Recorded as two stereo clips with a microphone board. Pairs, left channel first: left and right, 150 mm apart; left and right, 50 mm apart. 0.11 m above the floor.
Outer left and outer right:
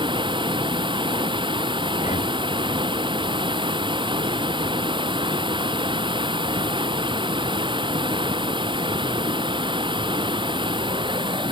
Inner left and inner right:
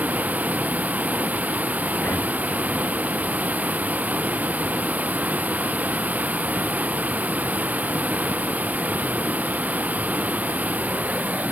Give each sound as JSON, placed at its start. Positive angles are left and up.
{"t": 0.0, "sound": "running water", "side_deg": -35}
{"t": 2.0, "sound": "breathing", "side_deg": 50}